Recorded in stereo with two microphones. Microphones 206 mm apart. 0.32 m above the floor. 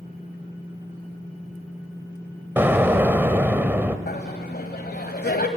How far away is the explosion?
About 1.1 m.